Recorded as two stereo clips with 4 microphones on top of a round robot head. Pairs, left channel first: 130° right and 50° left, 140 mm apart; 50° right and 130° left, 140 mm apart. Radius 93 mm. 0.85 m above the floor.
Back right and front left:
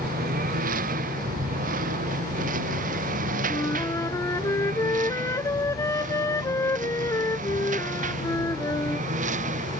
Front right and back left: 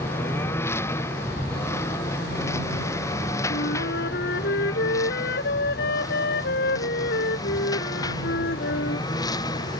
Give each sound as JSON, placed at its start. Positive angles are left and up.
{"t": 0.0, "sound": "a lawn mower", "azimuth_deg": 25}
{"t": 3.5, "sound": "a flute", "azimuth_deg": -60}